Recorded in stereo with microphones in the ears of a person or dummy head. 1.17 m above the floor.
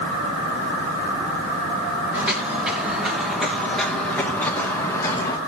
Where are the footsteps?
20° right (ahead or behind), 5 m; by 5.4 s 20° left (ahead or behind), 4 m.